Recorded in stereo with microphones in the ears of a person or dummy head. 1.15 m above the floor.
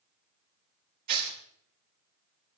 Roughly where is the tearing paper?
Right.